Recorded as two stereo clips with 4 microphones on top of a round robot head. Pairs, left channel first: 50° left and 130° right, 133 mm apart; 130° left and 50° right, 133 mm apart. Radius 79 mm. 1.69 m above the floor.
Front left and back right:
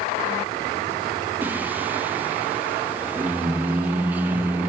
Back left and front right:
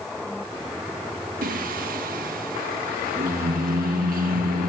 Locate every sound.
1.4 s singing: 55° right, 1.4 m